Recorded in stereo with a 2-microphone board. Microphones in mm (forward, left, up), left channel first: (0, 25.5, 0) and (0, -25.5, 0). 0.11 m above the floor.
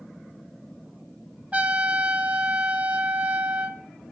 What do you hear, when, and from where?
1.5 s a trumpet: 25° right (ahead or behind), 0.6 m